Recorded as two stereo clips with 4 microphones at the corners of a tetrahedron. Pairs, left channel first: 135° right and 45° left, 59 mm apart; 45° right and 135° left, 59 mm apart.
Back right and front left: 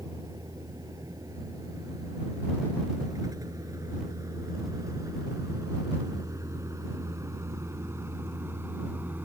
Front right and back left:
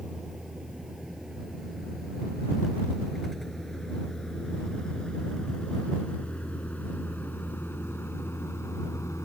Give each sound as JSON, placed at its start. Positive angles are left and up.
{"t": 0.0, "sound": "a vehicle", "azimuth_deg": 55}